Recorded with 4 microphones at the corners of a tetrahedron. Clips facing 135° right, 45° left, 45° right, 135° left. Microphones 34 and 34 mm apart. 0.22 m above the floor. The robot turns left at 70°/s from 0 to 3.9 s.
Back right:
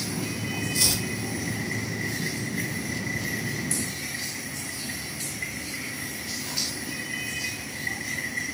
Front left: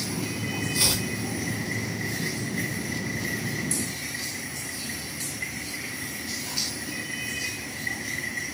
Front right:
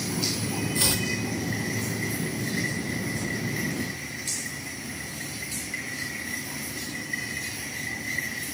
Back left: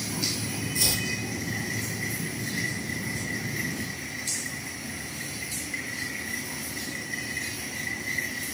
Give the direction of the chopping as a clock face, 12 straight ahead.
12 o'clock.